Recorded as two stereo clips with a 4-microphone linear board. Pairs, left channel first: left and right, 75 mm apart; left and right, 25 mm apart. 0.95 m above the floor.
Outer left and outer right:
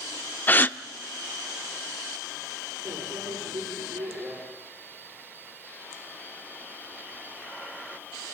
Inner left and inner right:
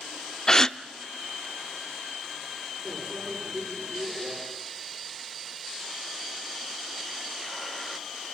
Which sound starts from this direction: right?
A microwave, at 2.9 s.